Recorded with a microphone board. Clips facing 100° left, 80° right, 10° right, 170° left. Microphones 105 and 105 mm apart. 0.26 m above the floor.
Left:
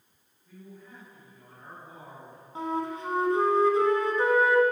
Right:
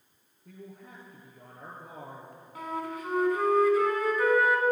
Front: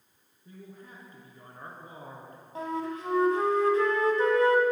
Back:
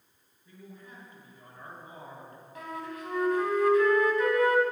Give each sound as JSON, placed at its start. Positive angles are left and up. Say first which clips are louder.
{"t": 0.5, "sound": "a man speaking", "louder": "right 1 dB, front 2 dB", "azimuth_deg": -60, "distance_m": 3.5}
{"t": 2.5, "sound": "a flute", "louder": "left 4 dB, front 6 dB", "azimuth_deg": 40, "distance_m": 1.3}